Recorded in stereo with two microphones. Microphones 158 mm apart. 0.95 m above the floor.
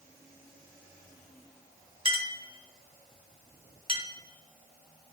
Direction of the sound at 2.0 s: 35° right (ahead or behind).